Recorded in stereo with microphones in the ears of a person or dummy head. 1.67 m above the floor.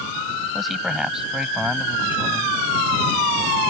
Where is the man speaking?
Centre (ahead or behind); by 2.6 s 10° right (ahead or behind).